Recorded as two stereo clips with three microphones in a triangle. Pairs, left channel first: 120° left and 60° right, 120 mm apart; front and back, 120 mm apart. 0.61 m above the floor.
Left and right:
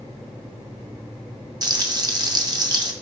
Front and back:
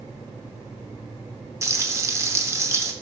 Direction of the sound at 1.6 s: 115° right.